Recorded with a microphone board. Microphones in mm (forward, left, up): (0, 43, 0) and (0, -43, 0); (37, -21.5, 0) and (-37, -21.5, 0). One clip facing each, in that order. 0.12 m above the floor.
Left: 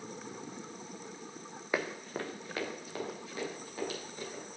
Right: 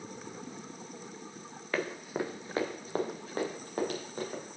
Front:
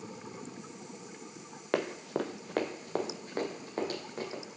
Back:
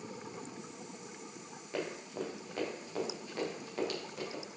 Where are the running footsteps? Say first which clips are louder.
Right 2 dB, front 7 dB; 15° left, 1.4 m; by 4.4 s 55° right, 4.5 m.